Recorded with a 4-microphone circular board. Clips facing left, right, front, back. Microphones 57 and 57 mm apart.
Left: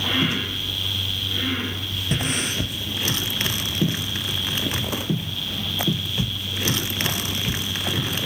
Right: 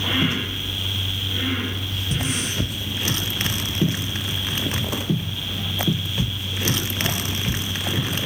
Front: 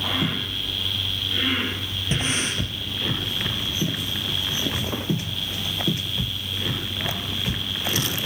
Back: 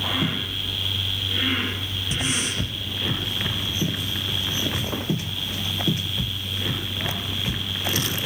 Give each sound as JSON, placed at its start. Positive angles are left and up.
{"t": 2.1, "sound": "breathing", "azimuth_deg": 55, "distance_m": 4.5}